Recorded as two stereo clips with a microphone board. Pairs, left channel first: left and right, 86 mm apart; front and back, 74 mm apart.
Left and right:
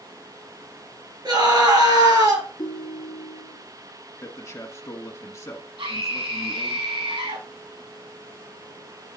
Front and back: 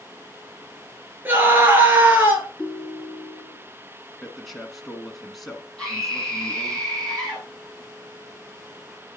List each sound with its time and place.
1.2 s a scream: 120° right, 3 m
2.6 s a ringtone: 95° left, 1.5 m
4.2 s a man speaking: 85° left, 1.5 m
5.8 s a scream: 80° right, 5.5 m